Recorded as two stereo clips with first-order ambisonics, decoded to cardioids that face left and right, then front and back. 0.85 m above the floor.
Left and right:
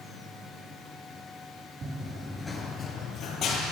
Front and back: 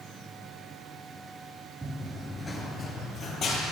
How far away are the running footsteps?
About 0.8 m.